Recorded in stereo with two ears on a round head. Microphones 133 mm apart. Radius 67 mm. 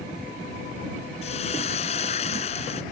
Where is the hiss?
45° left (ahead or behind).